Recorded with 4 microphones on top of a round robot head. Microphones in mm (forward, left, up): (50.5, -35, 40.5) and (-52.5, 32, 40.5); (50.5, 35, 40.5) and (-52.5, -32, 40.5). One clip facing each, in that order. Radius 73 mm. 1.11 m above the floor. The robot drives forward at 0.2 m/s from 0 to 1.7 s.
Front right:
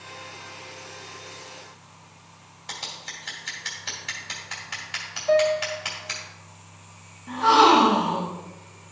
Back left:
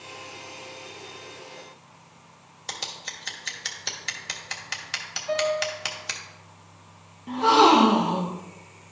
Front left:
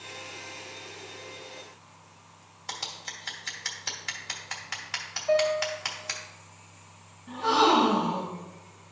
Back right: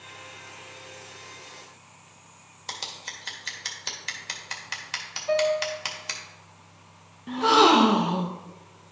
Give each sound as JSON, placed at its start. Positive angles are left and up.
{"t": 2.7, "sound": "scissors", "azimuth_deg": 150, "distance_m": 1.2}
{"t": 5.3, "sound": "a piano", "azimuth_deg": -90, "distance_m": 3.0}
{"t": 7.3, "sound": "a gasp", "azimuth_deg": -145, "distance_m": 0.8}